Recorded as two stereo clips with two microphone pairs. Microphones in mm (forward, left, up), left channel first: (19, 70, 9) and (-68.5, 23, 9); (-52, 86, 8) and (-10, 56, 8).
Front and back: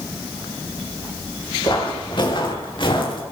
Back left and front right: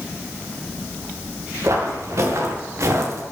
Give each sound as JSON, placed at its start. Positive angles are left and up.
{"t": 1.6, "sound": "footsteps", "azimuth_deg": -15, "distance_m": 4.5}